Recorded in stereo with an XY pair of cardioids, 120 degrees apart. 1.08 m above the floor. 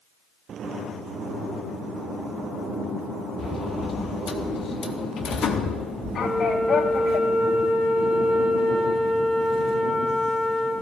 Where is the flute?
25° left, 4 m.